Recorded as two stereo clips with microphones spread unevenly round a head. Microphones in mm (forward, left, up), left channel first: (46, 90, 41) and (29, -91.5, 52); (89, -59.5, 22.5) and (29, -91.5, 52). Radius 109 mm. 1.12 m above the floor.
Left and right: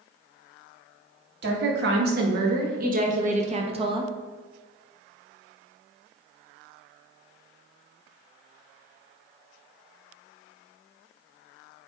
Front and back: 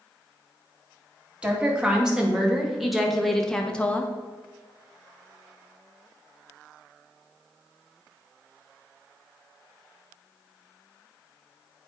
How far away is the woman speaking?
About 2.5 m.